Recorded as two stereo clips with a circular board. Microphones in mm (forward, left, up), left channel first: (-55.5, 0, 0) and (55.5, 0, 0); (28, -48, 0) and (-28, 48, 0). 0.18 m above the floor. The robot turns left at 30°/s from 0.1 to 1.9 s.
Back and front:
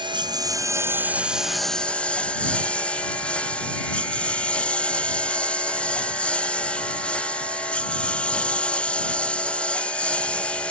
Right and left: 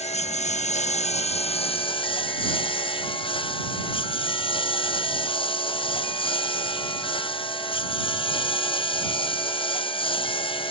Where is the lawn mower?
45° right; by 10.7 s 100° right.